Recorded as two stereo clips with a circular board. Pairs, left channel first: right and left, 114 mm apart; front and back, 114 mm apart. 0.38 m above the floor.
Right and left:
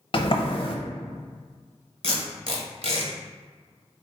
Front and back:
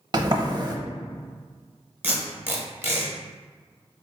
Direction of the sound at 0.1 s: 130° right.